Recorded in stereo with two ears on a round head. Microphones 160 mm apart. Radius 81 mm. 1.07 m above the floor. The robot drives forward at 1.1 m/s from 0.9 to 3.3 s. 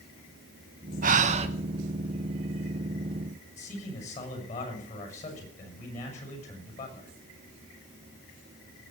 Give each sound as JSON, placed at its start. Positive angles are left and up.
{"t": 1.0, "sound": "breathing", "side_deg": -50, "distance_m": 0.9}
{"t": 3.6, "sound": "a man speaking", "side_deg": 40, "distance_m": 6.5}